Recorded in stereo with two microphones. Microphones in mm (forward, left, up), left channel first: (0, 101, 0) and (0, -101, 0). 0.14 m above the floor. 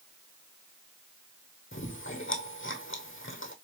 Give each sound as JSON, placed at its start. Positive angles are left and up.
{"t": 1.7, "sound": "chewing", "side_deg": 80, "distance_m": 1.4}